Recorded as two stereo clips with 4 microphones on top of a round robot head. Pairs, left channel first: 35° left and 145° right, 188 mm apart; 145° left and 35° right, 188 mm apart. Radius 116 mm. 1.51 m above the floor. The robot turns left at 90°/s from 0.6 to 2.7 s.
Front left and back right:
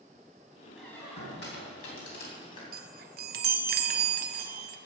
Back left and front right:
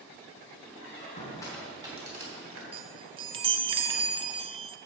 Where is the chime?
100° right, 0.6 m.